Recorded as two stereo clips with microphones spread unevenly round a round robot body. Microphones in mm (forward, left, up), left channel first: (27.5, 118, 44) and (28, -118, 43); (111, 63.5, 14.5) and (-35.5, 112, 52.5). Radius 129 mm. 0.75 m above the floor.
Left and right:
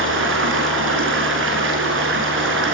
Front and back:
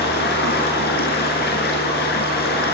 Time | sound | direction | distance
0.0 | running water | 50° right | 6.5 m